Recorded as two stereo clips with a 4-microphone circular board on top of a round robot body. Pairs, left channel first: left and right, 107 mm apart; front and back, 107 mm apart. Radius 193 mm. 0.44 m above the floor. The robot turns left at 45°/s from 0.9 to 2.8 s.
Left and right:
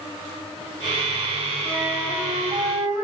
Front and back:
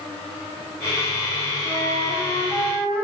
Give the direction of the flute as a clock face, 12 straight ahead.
1 o'clock.